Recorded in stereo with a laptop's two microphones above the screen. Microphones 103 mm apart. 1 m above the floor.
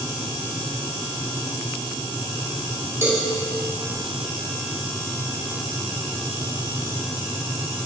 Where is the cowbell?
25° right (ahead or behind), 1.6 m.